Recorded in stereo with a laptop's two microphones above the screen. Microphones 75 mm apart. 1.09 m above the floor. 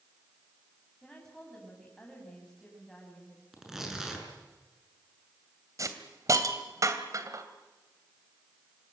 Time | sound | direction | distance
1.0 | a woman speaking | 10° left (ahead or behind) | 8 m
3.5 | tearing paper | 5° right (ahead or behind) | 6 m
5.8 | a hiss | 45° right (ahead or behind) | 2.5 m